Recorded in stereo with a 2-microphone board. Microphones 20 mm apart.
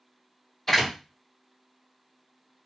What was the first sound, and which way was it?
A door slam, 25° left (ahead or behind).